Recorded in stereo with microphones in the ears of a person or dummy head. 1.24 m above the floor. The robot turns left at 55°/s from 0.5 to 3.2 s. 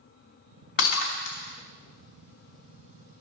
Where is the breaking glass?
65° left (ahead or behind), 2.5 m; by 3.2 s 60° right (ahead or behind), 2.5 m.